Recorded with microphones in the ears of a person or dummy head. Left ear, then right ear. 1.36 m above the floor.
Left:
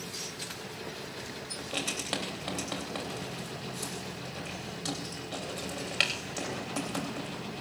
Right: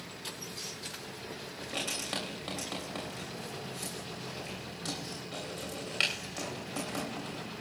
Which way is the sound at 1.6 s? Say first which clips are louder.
Left 1 dB; 10° left (ahead or behind).